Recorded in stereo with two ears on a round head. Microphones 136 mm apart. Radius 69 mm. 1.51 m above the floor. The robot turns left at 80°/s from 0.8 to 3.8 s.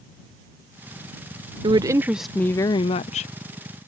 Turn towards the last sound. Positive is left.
turn(degrees=55)